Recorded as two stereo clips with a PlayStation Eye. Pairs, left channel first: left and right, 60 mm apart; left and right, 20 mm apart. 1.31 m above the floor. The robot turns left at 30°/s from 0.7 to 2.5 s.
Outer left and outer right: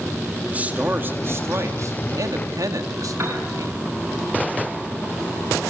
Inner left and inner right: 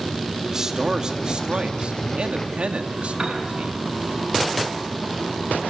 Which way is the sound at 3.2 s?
50° right (ahead or behind).